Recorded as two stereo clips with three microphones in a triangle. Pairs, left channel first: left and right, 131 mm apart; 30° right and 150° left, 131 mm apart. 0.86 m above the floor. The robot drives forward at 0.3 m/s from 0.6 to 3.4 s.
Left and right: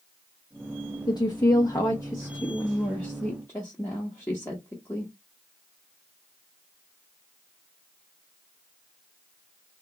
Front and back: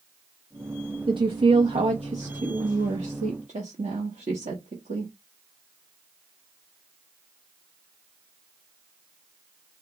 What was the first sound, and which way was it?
A woman speaking, 125° left.